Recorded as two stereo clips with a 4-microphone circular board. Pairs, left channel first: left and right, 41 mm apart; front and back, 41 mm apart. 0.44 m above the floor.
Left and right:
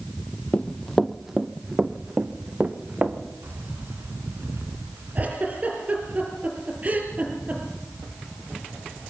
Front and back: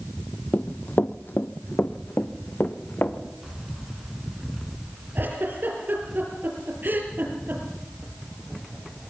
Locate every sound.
0.5 s running footsteps: 35° left, 0.7 m; by 3.2 s 40° right, 2 m
3.4 s keys jangling: 100° right, 3 m
5.2 s a giggle: 145° right, 5 m